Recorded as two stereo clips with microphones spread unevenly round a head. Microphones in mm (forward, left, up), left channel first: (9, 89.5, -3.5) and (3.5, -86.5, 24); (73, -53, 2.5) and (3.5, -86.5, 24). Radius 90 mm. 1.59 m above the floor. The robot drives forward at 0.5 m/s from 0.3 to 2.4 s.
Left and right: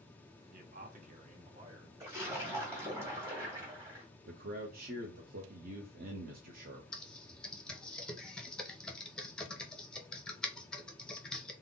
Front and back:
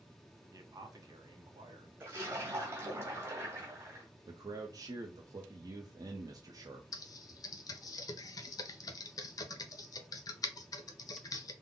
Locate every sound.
0.5 s a man speaking: 125° right, 0.9 m; by 1.9 s 150° right, 1.4 m
2.0 s a splash: 145° right, 1.7 m; by 4.0 s 150° right, 1.9 m
4.3 s a man speaking: 130° right, 0.6 m
6.9 s typing on a keyboard: 5° right, 0.6 m